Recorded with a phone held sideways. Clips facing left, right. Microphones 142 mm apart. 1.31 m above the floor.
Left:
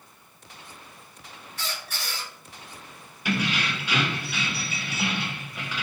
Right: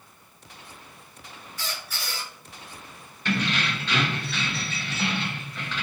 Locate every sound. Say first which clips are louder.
1.6 s a squeak: left 1 dB; 70° left (ahead or behind), 1.6 m
3.2 s keys jangling: even; 10° left (ahead or behind), 0.6 m